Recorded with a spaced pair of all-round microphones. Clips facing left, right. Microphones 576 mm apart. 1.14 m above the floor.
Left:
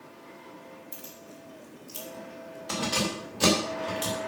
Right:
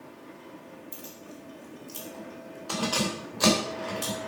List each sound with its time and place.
0.9 s keys jangling: 15° left (ahead or behind), 2 m; by 4.2 s 55° left (ahead or behind), 4 m